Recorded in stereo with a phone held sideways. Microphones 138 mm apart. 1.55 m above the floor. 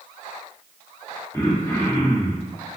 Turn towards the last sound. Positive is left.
turn(degrees=20)  # may be behind; listen again after turning